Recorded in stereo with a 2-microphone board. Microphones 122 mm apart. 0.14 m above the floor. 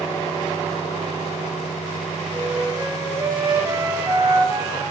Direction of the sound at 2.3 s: 25° right (ahead or behind).